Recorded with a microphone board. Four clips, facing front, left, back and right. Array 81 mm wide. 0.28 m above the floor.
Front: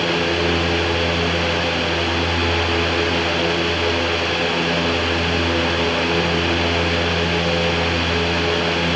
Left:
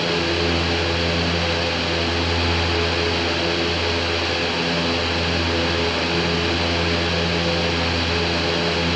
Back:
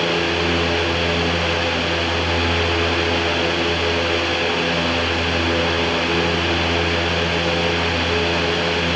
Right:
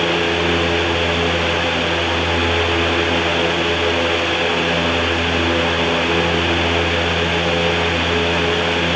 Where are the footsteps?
I don't hear footsteps.